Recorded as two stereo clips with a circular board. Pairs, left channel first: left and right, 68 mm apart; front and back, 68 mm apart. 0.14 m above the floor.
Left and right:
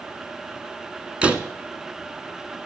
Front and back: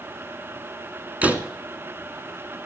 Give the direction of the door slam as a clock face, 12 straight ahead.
5 o'clock.